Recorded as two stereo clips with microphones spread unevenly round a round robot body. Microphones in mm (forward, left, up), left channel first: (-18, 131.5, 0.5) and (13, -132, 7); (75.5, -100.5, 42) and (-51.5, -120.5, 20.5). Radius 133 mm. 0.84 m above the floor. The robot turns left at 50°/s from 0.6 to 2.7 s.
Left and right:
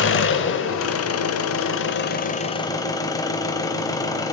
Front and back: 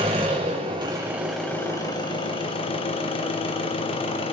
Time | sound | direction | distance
0.0 | an engine running | 125° left | 0.8 m